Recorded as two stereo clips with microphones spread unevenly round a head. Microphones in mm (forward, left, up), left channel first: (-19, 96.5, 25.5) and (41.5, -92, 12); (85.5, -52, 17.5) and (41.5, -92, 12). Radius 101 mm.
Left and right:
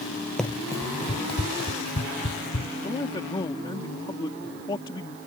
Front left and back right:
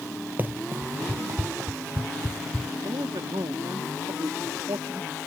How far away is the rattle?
I don't hear a rattle.